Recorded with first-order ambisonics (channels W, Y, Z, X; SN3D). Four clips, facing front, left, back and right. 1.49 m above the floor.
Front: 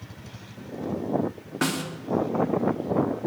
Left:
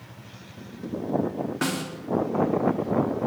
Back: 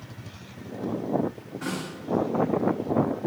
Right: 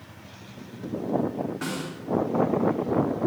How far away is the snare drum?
About 3 m.